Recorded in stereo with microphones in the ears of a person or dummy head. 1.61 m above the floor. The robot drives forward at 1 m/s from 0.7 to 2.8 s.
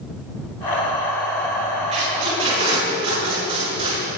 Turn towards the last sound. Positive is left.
turn(degrees=-30)  # may be behind; listen again after turning